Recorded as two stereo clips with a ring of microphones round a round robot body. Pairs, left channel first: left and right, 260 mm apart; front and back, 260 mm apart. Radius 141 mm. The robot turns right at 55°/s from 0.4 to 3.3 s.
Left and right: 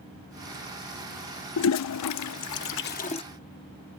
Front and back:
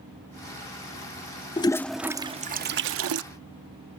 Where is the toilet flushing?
70° left; by 3.2 s 160° left.